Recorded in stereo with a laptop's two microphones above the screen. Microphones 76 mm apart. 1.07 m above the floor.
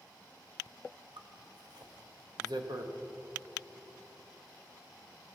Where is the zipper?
60° right (ahead or behind), 0.7 m.